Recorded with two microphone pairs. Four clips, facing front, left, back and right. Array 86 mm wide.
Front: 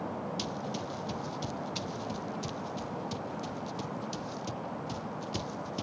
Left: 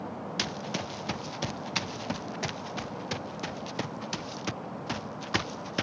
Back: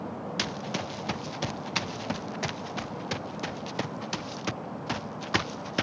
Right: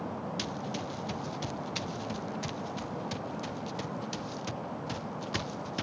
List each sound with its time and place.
0.4 s running footsteps: 145° left; by 5.8 s 155° left